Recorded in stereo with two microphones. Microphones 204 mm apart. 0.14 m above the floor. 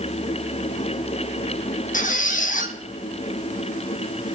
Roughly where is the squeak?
Left.